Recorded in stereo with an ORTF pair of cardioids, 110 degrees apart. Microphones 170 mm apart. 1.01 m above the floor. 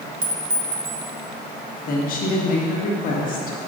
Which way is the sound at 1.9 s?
60° left.